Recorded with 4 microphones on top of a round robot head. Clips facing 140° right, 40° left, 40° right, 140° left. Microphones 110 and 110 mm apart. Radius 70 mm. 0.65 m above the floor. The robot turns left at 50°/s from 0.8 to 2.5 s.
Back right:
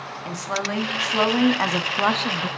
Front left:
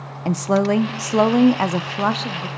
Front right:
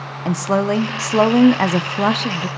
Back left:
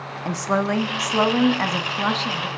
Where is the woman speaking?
20° left, 0.8 m; by 2.5 s 60° right, 0.8 m.